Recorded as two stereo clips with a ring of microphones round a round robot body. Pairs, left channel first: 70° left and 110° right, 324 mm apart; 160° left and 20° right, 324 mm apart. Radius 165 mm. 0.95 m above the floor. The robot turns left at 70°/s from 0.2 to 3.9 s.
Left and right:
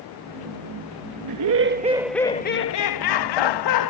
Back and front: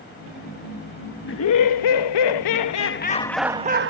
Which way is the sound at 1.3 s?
145° right.